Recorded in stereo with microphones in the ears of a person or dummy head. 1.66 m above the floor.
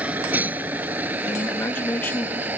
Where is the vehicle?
10° right (ahead or behind).